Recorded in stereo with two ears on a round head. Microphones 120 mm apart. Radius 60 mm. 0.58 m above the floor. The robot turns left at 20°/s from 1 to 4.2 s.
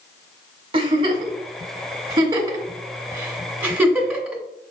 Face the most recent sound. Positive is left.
turn(degrees=-5)  # may be behind; listen again after turning